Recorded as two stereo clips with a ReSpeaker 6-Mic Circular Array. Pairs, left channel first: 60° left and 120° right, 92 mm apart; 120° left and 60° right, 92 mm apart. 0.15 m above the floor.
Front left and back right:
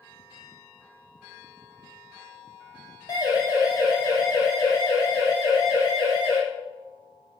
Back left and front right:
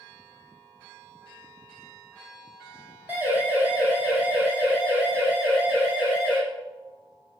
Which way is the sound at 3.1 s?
10° left.